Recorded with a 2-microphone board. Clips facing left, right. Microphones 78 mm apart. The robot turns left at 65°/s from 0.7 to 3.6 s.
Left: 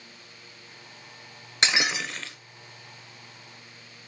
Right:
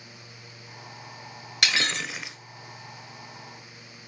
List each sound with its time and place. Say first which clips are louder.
1.6 s breaking glass: left 1 dB; 25° left, 1.1 m; by 2.4 s 20° right, 1.1 m